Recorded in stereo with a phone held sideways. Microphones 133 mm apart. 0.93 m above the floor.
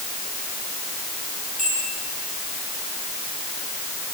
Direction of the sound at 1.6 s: 75° left (ahead or behind).